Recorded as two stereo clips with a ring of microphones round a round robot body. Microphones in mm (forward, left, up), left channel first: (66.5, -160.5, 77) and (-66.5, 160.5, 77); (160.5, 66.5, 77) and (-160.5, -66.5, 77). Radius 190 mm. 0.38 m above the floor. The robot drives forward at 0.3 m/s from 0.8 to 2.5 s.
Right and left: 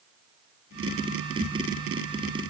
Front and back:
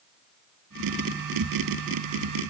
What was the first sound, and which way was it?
Only background noise.